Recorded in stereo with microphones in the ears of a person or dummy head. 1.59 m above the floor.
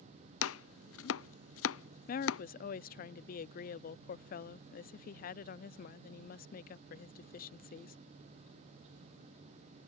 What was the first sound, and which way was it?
Chopping, 70° left (ahead or behind).